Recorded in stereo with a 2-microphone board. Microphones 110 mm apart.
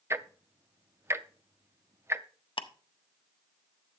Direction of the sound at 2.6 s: 55° left (ahead or behind).